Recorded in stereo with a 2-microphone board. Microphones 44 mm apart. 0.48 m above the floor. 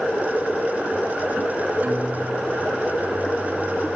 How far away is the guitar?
About 2.0 m.